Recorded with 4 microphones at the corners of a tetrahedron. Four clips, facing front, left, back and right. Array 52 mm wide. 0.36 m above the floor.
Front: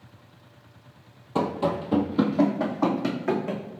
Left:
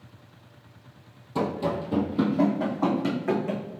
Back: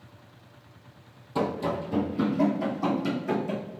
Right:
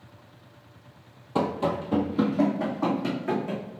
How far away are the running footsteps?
About 0.7 m.